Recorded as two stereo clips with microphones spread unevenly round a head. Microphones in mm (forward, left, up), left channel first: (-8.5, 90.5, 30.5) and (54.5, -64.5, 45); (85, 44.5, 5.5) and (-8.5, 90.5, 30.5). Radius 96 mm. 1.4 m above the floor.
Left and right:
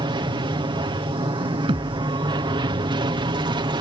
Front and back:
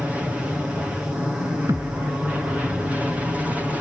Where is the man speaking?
I don't hear a man speaking.